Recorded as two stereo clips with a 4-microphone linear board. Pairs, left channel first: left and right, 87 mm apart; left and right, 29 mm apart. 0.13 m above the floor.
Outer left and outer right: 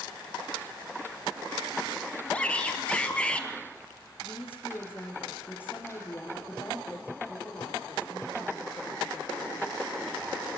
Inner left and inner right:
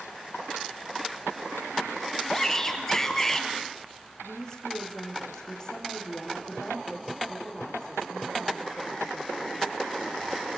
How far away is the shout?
About 3 m.